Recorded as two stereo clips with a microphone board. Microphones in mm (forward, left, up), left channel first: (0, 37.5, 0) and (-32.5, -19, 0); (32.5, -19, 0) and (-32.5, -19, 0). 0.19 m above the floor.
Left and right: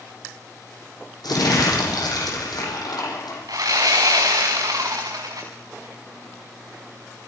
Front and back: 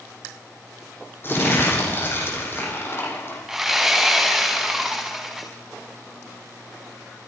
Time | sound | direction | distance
1.2 | crumpling | 55° left | 8.5 m
3.5 | sawing | 95° right | 5.5 m